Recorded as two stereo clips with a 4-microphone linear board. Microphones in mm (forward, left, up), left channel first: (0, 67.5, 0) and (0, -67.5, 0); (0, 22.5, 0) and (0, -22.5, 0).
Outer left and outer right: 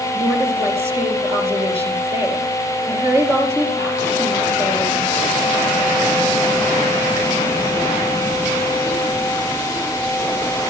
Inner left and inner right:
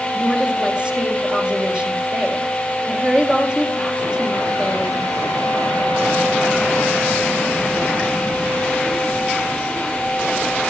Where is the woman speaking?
20° right (ahead or behind), 4.5 m.